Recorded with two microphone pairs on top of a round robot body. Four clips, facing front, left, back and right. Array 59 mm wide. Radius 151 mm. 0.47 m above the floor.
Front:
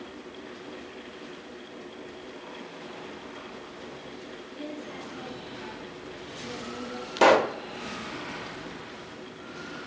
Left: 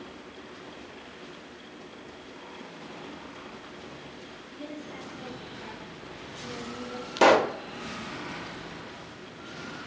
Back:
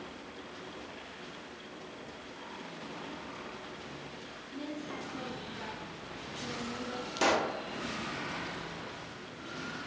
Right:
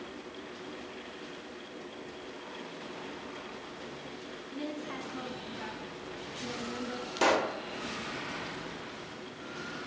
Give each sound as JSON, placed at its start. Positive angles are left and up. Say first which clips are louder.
{"t": 4.5, "sound": "a woman speaking", "louder": "right 2 dB, front 1 dB", "azimuth_deg": -95, "distance_m": 8.0}
{"t": 7.2, "sound": "a pop", "louder": "left 8 dB, front 10 dB", "azimuth_deg": 45, "distance_m": 1.4}